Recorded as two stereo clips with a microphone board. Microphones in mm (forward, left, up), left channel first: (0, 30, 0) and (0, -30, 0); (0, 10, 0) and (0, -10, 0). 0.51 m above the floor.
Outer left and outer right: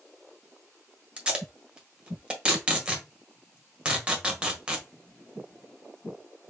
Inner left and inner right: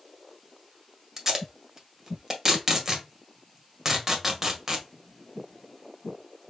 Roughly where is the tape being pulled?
Centre.